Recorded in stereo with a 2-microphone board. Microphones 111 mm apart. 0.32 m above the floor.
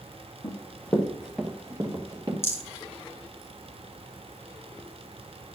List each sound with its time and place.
0.4 s running footsteps: 35° left (ahead or behind), 1.3 m; by 2.3 s 45° right (ahead or behind), 1.5 m
2.4 s a rattle: 25° left (ahead or behind), 1.6 m